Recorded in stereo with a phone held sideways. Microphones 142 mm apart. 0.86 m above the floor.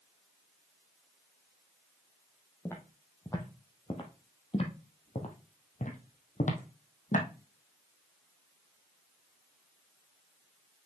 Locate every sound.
2.6 s footsteps: 15° left (ahead or behind), 2 m; by 7.3 s 65° left (ahead or behind), 2 m